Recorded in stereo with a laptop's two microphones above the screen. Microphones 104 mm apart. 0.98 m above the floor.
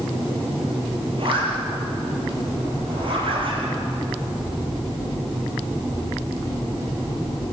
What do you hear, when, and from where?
1.2 s a zipper: 55° right (ahead or behind), 7 m